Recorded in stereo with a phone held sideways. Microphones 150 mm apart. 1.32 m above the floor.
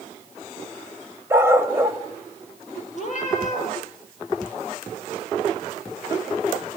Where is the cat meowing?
55° left (ahead or behind), 9.5 m.